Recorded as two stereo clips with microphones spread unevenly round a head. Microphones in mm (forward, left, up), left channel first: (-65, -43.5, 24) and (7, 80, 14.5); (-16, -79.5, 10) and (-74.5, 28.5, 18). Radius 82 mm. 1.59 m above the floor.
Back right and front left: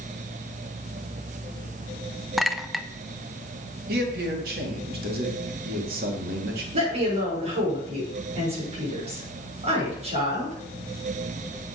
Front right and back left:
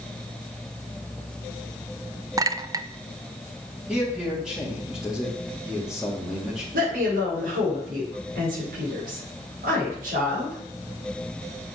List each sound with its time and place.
2.4 s a clink: 150° left, 0.6 m
3.9 s a man speaking: 35° left, 2.5 m
6.7 s a woman speaking: 105° left, 6 m